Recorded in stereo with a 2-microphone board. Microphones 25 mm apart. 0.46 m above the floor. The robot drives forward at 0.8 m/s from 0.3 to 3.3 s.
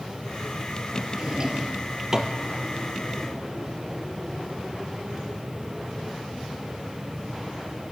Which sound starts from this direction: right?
A drawer, at 1.2 s.